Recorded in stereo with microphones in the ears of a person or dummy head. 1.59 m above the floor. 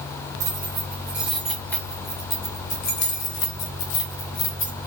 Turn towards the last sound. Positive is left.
turn(degrees=60)  # may be behind; listen again after turning